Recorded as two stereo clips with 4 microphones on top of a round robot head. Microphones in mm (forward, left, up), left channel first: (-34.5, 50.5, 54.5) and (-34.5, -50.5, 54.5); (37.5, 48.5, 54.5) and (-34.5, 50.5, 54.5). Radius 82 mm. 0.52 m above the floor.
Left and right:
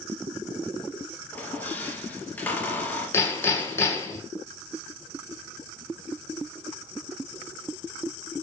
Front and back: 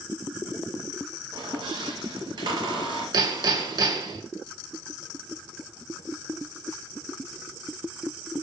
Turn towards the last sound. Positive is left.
turn(degrees=155)